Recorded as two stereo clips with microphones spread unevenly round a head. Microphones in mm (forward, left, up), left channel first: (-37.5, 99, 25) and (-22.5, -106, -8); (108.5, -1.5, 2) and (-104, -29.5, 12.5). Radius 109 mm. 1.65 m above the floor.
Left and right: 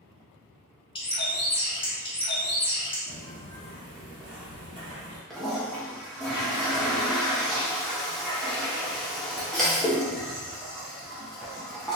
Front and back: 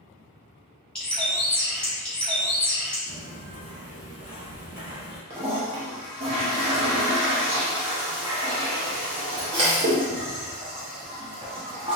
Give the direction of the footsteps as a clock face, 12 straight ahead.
10 o'clock.